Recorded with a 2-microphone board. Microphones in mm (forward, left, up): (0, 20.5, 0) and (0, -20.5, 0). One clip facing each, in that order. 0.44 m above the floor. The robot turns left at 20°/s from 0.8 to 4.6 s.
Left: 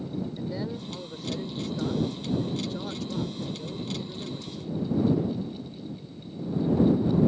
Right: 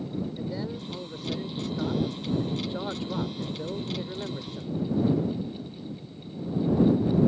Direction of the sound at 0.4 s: 5° left.